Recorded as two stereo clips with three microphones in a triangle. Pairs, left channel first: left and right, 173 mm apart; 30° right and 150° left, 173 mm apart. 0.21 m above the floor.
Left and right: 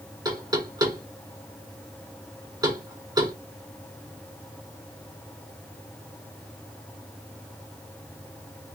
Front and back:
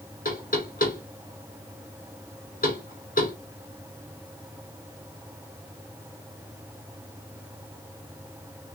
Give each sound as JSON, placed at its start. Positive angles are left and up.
{"t": 0.2, "sound": "knocking", "azimuth_deg": -25, "distance_m": 2.5}